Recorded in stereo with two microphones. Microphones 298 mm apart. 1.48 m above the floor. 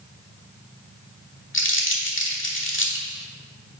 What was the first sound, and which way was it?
Crumpling, 40° left (ahead or behind).